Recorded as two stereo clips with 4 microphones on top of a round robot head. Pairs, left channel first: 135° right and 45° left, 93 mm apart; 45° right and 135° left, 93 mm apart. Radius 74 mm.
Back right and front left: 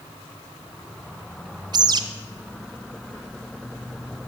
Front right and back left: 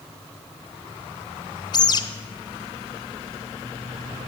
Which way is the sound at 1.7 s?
Straight ahead.